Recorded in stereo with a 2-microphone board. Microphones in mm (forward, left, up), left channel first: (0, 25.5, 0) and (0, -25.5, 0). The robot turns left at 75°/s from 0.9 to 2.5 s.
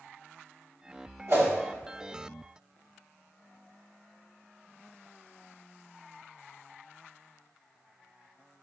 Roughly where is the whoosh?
Right.